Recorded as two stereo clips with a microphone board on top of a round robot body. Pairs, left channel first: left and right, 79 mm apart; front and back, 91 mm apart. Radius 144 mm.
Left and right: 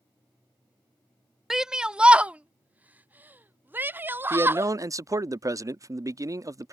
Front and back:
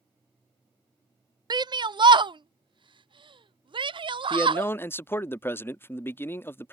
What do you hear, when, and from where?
1.5 s a shout: 175° right; by 4.7 s 155° right
4.3 s a man speaking: 60° right